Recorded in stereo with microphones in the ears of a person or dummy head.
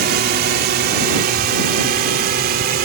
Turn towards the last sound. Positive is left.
turn(degrees=-50)  # may be behind; listen again after turning